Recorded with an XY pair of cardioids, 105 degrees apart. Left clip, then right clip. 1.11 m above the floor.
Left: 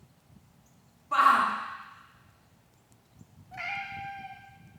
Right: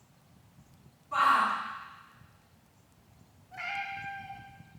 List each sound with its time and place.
1.1 s a shout: 60° left, 1.4 m
3.5 s a cat meowing: 30° left, 1.3 m